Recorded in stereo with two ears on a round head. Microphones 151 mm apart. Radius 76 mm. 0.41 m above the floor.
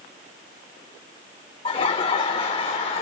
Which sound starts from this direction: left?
Laughter, at 1.6 s.